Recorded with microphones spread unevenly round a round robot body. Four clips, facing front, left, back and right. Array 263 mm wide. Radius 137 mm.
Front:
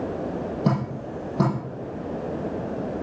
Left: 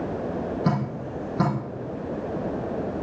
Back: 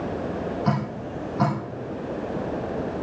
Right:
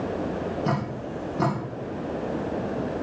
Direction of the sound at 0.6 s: 30° left.